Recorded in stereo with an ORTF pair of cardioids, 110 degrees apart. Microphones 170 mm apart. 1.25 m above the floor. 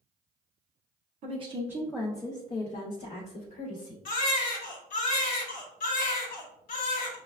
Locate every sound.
1.2 s a woman speaking: 45° right, 0.6 m; by 4.0 s 60° left, 1.6 m
4.0 s a baby crying: 55° left, 1.0 m